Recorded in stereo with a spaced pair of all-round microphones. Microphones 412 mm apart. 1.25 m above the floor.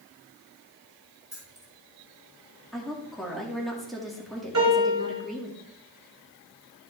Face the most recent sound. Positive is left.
turn(degrees=-45)  # may be behind; listen again after turning